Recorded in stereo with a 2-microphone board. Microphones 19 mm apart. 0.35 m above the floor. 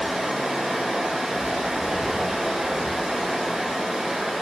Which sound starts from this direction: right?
Running water, at 0.0 s.